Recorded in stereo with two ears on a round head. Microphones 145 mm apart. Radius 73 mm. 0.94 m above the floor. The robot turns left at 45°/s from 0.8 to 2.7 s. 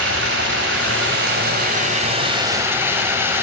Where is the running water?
80° right, 3 m; by 3.4 s 165° right, 3 m.